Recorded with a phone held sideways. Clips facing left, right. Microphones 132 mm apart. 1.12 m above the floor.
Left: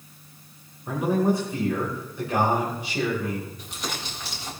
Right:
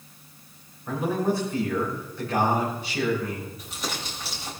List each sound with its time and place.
0.9 s a man speaking: 20° left (ahead or behind), 4 m
3.6 s crumpling: centre (ahead or behind), 5.5 m